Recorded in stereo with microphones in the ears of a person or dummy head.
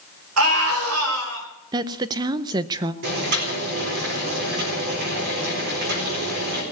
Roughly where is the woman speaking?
Right.